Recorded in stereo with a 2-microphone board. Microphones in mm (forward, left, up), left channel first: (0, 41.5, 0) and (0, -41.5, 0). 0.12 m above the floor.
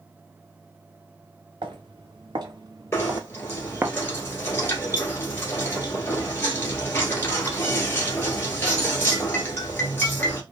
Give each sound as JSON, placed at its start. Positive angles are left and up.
{"t": 1.6, "sound": "footsteps", "side_deg": -70, "distance_m": 1.5}
{"t": 2.9, "sound": "knocking", "side_deg": 25, "distance_m": 1.5}